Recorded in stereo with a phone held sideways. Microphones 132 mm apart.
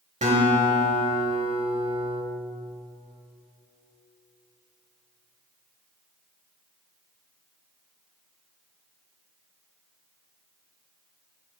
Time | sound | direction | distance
0.2 | a guitar | 65° right (ahead or behind) | 1.4 m